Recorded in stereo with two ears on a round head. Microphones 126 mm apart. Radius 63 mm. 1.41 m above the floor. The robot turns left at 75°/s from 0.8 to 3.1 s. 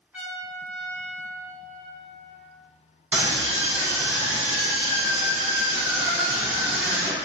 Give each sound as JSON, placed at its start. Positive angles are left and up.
{"t": 0.1, "sound": "a trumpet", "azimuth_deg": -170, "distance_m": 1.2}
{"t": 3.1, "sound": "a scream", "side_deg": -10, "distance_m": 1.0}